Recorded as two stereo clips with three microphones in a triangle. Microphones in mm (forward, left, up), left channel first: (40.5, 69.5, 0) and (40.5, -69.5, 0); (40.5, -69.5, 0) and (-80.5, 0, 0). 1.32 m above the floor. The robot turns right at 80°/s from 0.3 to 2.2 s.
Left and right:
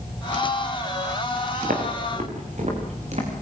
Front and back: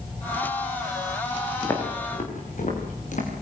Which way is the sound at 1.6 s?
105° right.